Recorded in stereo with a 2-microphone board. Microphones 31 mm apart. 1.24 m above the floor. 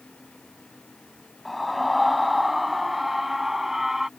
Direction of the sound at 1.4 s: Centre (ahead or behind).